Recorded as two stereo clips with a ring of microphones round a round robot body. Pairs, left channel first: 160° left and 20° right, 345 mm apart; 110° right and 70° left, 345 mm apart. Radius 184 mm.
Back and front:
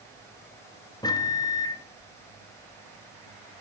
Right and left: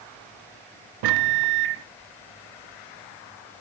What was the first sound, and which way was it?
A microwave, 80° left.